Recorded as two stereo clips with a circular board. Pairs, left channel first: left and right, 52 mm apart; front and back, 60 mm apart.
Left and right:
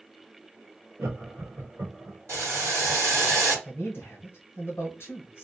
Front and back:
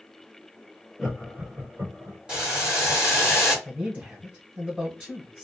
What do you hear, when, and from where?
1.0 s laughter: 100° right, 1.3 m; by 2.2 s 150° right, 1.6 m
2.3 s boiling: 105° right, 1.5 m
3.6 s a man speaking: 120° left, 0.9 m